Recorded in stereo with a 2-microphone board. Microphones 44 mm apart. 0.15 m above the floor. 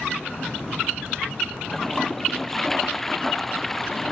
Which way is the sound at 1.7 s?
5° left (ahead or behind).